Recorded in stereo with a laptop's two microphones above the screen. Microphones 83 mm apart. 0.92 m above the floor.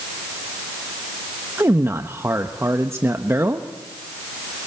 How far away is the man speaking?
About 1.1 m.